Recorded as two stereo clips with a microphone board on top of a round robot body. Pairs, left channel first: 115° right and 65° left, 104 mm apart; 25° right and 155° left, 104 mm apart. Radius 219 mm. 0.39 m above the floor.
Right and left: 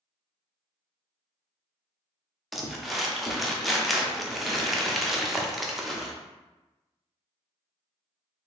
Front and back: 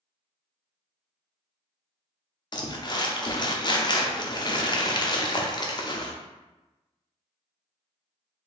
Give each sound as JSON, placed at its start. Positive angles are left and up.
{"t": 2.5, "sound": "crumpling", "azimuth_deg": -20, "distance_m": 1.0}